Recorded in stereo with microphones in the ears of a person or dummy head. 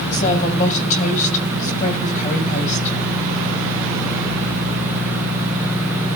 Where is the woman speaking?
40° left (ahead or behind), 6 m.